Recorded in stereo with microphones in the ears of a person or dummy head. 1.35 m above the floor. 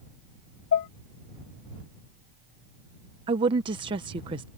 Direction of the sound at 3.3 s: 25° right (ahead or behind).